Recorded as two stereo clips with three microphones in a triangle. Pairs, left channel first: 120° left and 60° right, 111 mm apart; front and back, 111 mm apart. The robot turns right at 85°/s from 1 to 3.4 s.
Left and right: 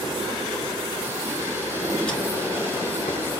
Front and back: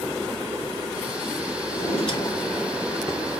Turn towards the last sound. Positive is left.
turn(degrees=150)